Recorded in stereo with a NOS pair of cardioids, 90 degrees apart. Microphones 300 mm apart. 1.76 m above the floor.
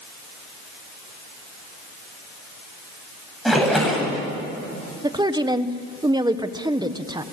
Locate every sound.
3.5 s a splash: straight ahead, 8 m
5.0 s a woman speaking: 15° right, 1.6 m